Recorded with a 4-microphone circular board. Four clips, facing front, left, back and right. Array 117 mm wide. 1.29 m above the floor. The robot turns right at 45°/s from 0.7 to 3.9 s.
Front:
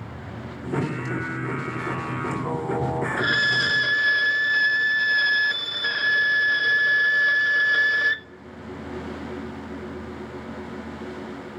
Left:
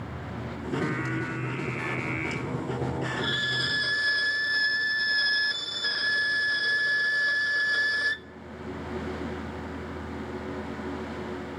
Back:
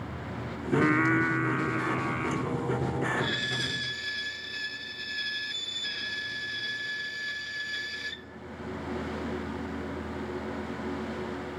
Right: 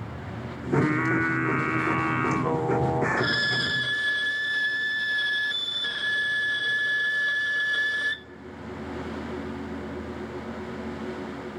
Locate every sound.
0.7 s singing: 155° right, 3.5 m; by 3.1 s 50° right, 3.5 m
3.2 s a violin: 20° right, 0.5 m; by 8.3 s 15° left, 0.5 m